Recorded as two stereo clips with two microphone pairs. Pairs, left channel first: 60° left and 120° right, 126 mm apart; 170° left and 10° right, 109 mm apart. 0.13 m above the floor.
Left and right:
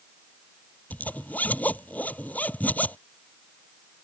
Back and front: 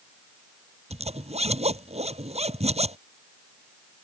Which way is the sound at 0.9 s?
20° right.